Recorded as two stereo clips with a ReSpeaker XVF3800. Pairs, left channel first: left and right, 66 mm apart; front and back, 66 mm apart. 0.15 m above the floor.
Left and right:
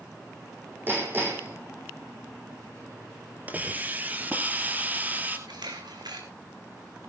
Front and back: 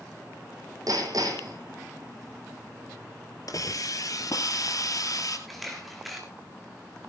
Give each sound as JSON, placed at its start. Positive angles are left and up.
{"t": 0.9, "sound": "hammering", "azimuth_deg": -150, "distance_m": 5.0}
{"t": 3.5, "sound": "a hiss", "azimuth_deg": -25, "distance_m": 2.0}
{"t": 5.5, "sound": "a camera shutter", "azimuth_deg": -90, "distance_m": 2.5}